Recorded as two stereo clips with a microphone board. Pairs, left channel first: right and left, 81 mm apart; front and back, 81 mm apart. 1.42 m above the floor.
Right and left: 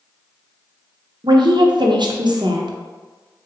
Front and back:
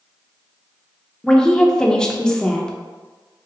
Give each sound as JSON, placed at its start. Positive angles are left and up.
{"t": 1.2, "sound": "a woman speaking", "azimuth_deg": 80, "distance_m": 0.7}